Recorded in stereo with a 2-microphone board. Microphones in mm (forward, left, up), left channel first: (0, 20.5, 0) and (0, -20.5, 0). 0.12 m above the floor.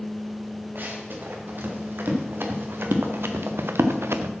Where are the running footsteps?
60° right (ahead or behind), 3 m; by 4.3 s 85° right, 0.9 m.